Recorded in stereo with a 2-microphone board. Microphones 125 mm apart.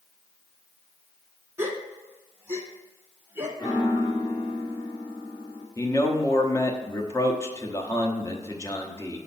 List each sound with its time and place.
1.6 s a gasp: 20° right (ahead or behind), 0.9 m
3.6 s a piano: 25° left (ahead or behind), 1.7 m
5.8 s a man speaking: 25° left (ahead or behind), 0.9 m